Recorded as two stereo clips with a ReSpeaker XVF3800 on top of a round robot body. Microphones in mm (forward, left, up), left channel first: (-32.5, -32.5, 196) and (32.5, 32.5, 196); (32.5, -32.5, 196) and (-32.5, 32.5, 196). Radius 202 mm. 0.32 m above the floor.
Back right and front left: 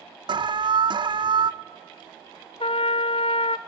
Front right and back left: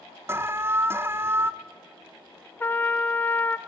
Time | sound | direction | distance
0.3 | an alarm | 75° left | 1.0 m
2.6 | a trumpet | 115° right | 0.6 m